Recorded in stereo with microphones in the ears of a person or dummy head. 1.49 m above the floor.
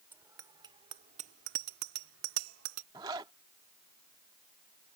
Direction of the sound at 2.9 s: 20° right (ahead or behind).